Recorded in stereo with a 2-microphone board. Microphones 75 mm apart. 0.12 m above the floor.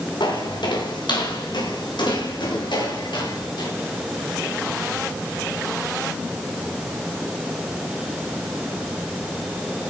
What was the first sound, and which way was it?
Footsteps, 85° left.